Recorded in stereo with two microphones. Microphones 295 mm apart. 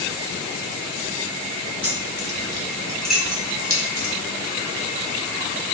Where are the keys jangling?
45° left (ahead or behind), 1.3 m; by 4.1 s 40° right (ahead or behind), 1.1 m.